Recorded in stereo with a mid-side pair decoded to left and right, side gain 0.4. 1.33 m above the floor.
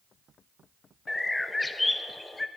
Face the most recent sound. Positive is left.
turn(degrees=20)